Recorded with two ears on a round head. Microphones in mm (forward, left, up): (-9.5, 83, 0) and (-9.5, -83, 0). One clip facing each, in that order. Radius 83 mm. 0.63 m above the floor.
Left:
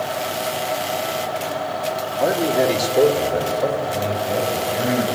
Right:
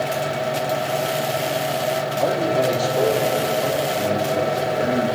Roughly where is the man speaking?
Centre.